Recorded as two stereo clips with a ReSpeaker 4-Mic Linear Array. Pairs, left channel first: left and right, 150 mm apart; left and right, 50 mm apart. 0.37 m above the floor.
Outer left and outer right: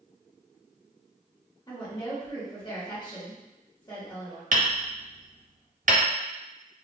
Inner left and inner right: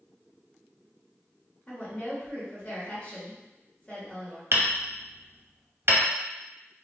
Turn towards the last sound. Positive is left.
turn(degrees=-60)  # may be behind; listen again after turning